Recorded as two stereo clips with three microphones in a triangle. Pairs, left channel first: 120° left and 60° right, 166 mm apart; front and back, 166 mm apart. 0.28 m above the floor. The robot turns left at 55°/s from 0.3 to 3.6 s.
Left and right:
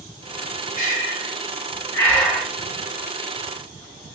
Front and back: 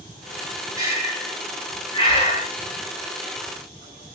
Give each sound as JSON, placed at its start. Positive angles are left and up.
{"t": 0.8, "sound": "breathing", "azimuth_deg": 115, "distance_m": 1.5}